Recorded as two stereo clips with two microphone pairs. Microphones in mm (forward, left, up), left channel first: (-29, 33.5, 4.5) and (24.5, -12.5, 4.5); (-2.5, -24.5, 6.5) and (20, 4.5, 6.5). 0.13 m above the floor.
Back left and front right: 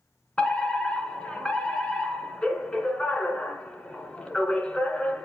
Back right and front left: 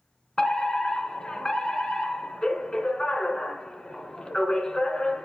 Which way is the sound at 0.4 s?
175° left.